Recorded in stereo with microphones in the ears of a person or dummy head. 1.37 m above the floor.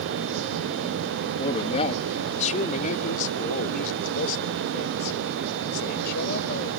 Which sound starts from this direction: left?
A man speaking, at 1.4 s.